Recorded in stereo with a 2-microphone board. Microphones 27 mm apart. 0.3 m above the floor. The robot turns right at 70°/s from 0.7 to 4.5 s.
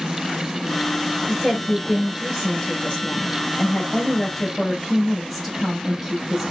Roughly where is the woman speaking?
Ahead right.